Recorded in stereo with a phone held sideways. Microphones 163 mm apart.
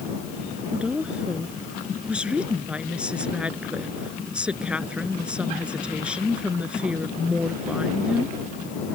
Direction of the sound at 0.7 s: 5° right (ahead or behind).